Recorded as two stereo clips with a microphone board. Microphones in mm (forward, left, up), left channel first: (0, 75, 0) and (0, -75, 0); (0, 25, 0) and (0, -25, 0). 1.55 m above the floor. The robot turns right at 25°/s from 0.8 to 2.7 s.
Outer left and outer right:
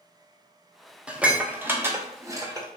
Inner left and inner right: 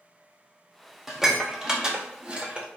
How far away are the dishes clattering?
About 0.6 m.